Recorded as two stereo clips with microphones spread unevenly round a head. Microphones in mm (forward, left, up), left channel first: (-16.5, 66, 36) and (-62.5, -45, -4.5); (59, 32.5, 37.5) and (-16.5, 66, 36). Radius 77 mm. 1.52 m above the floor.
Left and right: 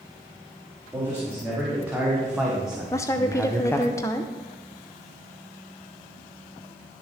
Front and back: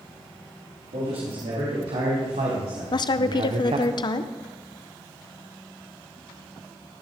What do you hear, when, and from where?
0.9 s a man speaking: 170° left, 3.5 m; by 3.9 s 135° left, 0.8 m
2.9 s a woman speaking: 5° left, 0.7 m